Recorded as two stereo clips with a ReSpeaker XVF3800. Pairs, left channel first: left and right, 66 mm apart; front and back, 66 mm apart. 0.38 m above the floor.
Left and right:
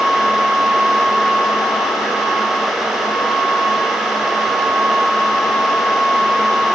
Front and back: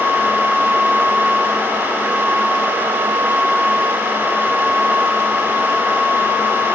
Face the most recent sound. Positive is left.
No sound to turn to.